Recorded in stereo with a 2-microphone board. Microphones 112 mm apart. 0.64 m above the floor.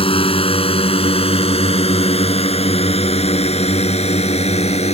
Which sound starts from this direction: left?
A drone, at 0.0 s.